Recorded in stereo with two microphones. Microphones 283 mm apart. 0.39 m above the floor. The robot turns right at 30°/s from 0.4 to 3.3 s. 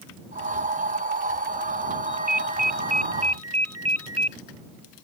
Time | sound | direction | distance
2.1 | a ringtone | 95° right | ?